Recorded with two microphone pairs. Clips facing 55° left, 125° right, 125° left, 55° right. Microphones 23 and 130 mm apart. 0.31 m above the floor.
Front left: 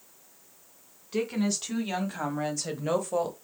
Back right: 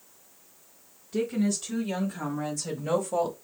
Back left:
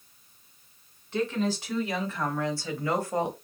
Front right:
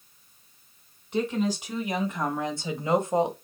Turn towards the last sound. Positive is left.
turn(degrees=-45)